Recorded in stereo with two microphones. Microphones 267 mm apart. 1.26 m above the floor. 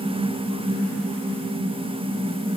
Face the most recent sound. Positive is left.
No sound to turn to.